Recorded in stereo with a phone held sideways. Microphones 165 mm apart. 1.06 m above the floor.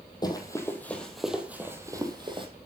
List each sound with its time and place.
0.2 s running footsteps: 25° left (ahead or behind), 1.7 m; by 2.5 s 30° right (ahead or behind), 1.9 m